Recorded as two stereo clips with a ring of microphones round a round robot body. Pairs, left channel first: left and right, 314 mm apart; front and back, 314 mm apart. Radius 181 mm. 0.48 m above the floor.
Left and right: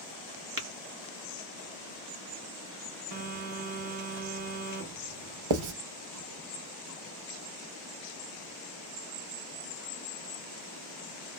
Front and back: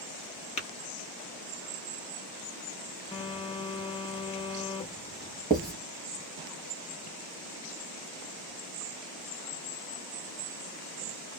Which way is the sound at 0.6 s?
60° right.